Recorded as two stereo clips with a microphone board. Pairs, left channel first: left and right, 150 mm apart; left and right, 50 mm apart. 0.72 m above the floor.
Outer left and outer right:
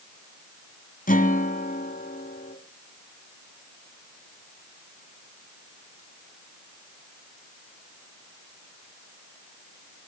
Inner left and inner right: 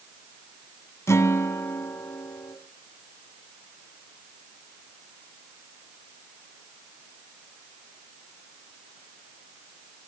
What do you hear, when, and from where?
1.1 s a guitar: 70° left (ahead or behind), 2 m